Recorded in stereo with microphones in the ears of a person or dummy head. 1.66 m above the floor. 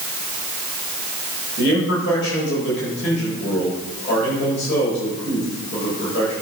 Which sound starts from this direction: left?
A man speaking, at 1.6 s.